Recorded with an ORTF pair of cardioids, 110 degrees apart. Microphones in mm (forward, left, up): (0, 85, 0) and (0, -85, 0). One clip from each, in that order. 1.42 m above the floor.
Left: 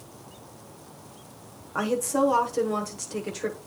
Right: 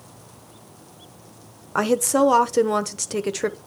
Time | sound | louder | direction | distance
1.8 | a woman speaking | right 6 dB | 50° right | 1.0 m